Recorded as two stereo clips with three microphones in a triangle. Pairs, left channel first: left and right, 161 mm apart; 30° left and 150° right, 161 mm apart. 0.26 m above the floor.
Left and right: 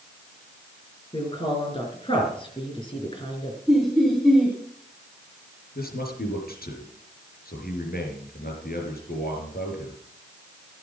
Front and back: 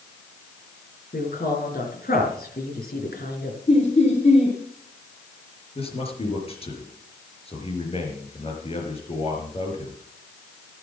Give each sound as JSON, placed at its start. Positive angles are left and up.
{"t": 1.1, "sound": "a woman speaking", "azimuth_deg": 35, "distance_m": 4.5}
{"t": 3.7, "sound": "laughter", "azimuth_deg": 0, "distance_m": 2.5}
{"t": 5.8, "sound": "a man speaking", "azimuth_deg": 80, "distance_m": 4.5}